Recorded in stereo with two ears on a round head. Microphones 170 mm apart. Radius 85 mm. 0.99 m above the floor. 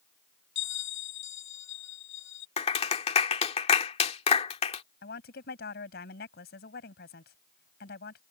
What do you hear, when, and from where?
0.6 s a bell: 80° left
2.6 s a clap: 35° left (ahead or behind)
5.0 s a woman speaking: 60° left (ahead or behind)